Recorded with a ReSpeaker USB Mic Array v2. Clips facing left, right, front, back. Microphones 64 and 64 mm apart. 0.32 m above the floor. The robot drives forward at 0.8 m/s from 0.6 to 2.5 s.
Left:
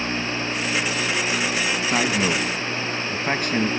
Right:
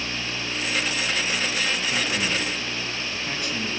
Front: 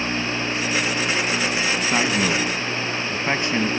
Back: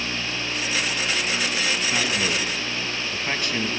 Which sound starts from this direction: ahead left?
A man speaking, at 1.9 s.